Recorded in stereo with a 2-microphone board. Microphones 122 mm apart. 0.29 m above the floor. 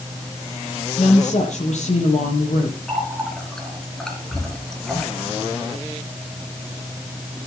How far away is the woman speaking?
About 7.5 m.